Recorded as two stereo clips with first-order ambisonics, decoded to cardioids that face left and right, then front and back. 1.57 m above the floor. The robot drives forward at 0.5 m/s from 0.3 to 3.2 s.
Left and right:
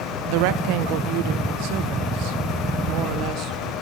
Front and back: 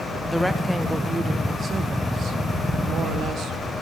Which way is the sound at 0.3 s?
85° right.